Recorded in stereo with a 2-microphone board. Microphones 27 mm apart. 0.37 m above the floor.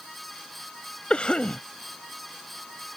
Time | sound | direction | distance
1.1 | a cough | 45° left (ahead or behind) | ?